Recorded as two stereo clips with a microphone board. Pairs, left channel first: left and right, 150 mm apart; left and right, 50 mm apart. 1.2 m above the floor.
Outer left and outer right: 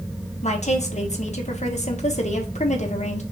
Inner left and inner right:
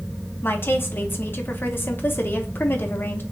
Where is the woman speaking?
50° left (ahead or behind), 1.1 m.